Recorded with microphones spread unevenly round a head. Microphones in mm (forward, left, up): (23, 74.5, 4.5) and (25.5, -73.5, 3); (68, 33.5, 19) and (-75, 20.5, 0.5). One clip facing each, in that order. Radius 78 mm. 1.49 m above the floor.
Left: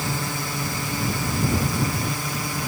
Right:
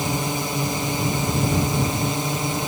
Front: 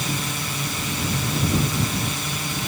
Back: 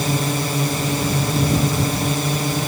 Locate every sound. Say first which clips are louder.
0.0 s a drone: right 4 dB, back 7 dB; 150° right